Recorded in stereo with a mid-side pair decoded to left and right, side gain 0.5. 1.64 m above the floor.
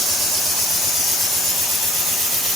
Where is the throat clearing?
No throat clearing in this recording.